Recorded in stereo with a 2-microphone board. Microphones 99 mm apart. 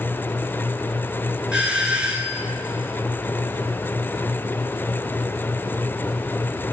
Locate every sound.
1.5 s a doorbell: 10° right (ahead or behind), 1.6 m